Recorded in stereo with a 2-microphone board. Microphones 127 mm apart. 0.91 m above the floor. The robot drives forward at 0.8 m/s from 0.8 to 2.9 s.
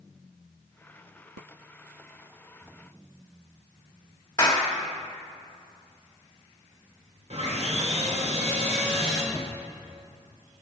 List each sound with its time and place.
4.4 s a clap: 30° left (ahead or behind), 1.6 m
7.3 s sawing: 60° right (ahead or behind), 2 m
9.3 s a cupboard door: 15° left (ahead or behind), 0.7 m